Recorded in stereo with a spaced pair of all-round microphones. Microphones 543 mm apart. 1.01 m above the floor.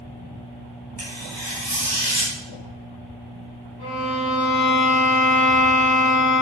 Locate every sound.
1.0 s tearing paper: 40° right (ahead or behind), 4 m
3.8 s a violin: 45° right (ahead or behind), 4 m